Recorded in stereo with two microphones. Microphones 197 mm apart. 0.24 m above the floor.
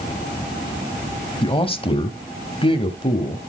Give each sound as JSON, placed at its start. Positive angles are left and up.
{"t": 1.4, "sound": "a man speaking", "side_deg": 25, "distance_m": 1.0}